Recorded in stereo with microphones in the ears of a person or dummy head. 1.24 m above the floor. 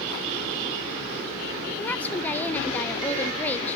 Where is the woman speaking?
10° left (ahead or behind), 0.6 m.